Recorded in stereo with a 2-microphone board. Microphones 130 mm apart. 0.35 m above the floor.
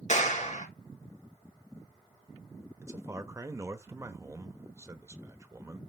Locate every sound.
0.1 s a clap: 60° left (ahead or behind), 3.5 m
2.8 s a man speaking: 20° right (ahead or behind), 1.0 m